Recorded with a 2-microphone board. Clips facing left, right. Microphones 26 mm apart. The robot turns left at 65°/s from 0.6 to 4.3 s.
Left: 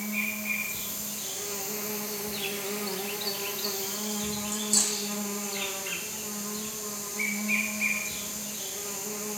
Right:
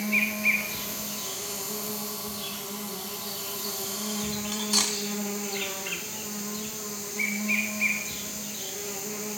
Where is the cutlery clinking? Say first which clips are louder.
Right 3 dB; 50° right (ahead or behind), 1.4 m.